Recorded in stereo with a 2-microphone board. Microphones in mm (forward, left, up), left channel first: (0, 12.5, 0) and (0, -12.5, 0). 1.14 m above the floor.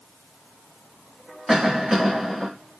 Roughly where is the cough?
Centre.